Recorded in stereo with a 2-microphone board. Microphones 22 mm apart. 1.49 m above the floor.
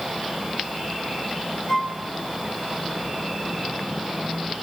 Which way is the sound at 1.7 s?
30° left (ahead or behind).